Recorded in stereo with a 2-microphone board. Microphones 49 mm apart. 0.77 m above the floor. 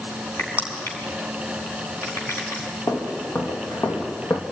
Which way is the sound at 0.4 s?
60° left (ahead or behind).